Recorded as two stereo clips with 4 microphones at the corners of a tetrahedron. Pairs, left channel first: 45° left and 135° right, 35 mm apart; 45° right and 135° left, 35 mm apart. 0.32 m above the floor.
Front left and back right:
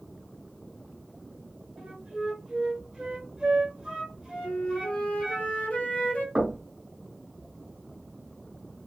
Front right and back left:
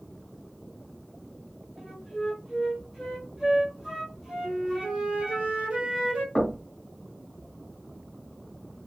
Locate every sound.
1.8 s a flute: 155° right, 1.6 m
4.4 s a flute: 85° left, 0.8 m
6.3 s knocking: 105° right, 1.2 m